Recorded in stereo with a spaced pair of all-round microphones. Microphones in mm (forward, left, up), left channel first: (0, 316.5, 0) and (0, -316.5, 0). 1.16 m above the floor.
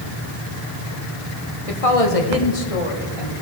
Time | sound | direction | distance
1.7 | a woman speaking | 60° left (ahead or behind) | 1.2 m